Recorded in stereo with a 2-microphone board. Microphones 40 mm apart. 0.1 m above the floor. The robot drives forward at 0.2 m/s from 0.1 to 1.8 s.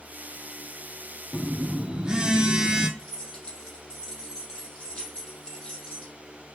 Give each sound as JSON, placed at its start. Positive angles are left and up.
{"t": 1.3, "sound": "a phone buzzing", "side_deg": -25, "distance_m": 0.6}
{"t": 3.0, "sound": "keys jangling", "side_deg": 25, "distance_m": 2.5}